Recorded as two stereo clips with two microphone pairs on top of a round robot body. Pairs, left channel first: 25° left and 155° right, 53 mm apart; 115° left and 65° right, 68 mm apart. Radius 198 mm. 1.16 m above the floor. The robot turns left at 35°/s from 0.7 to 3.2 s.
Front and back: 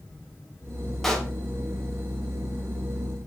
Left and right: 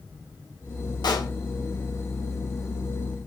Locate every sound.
1.0 s a pop: 110° left, 2.5 m; by 1.3 s 100° left, 2.5 m